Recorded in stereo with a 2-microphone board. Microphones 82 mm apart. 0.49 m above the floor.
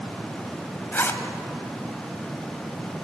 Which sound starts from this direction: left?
A zipper, at 0.9 s.